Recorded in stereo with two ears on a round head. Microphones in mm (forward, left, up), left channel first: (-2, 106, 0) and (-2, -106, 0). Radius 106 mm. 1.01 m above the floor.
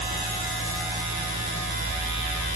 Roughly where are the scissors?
No scissors in this recording.